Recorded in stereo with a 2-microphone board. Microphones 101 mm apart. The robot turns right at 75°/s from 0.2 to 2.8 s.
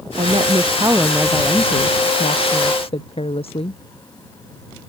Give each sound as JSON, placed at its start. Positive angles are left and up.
{"t": 0.2, "sound": "a woman speaking", "azimuth_deg": -80}